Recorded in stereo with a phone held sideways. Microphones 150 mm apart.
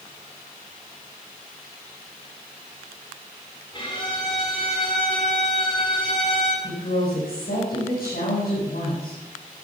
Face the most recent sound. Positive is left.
turn(degrees=80)